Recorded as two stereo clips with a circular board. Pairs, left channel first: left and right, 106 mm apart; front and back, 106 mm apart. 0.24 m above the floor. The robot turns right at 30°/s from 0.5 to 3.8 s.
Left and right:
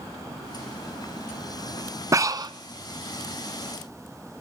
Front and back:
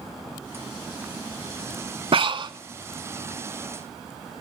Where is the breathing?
150° right, 0.6 m; by 2.5 s 135° right, 0.6 m.